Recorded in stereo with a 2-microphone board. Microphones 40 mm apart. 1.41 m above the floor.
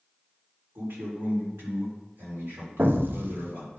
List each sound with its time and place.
0.8 s a man speaking: 80° right, 3.5 m
2.8 s an explosion: 60° right (ahead or behind), 0.6 m